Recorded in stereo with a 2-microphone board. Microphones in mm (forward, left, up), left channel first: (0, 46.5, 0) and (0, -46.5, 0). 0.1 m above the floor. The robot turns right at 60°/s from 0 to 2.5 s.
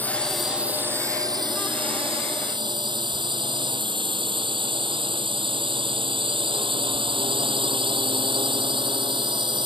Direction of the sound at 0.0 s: 20° left (ahead or behind).